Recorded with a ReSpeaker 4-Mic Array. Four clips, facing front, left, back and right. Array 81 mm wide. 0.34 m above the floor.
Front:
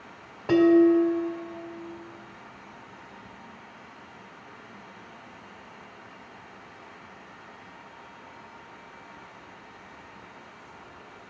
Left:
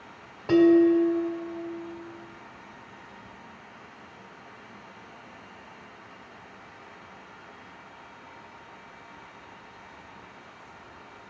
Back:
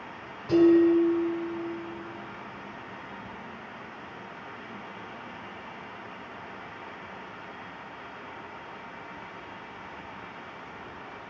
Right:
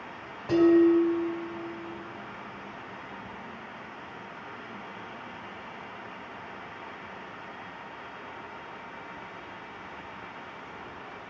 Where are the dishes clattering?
20° left, 1.6 m.